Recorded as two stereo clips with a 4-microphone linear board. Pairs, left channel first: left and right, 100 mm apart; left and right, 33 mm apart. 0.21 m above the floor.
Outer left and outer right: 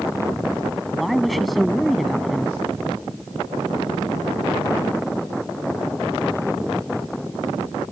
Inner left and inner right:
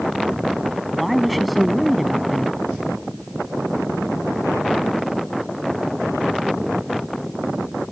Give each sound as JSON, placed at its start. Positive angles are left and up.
{"t": 0.9, "sound": "a woman speaking", "side_deg": 0}